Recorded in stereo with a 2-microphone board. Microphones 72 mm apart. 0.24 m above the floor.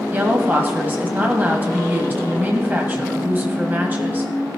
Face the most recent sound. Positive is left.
turn(degrees=-25)  # may be behind; listen again after turning